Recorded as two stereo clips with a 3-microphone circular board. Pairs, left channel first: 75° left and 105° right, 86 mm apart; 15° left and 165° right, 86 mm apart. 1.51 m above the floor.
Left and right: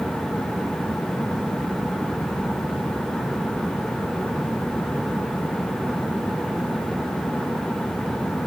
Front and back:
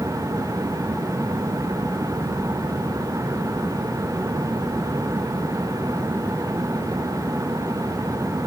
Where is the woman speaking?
I don't hear a woman speaking.